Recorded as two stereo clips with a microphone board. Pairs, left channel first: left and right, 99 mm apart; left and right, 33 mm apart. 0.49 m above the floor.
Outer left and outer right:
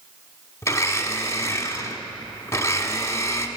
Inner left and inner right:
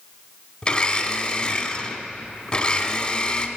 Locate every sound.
0.6 s a blender: 25° left (ahead or behind), 1.1 m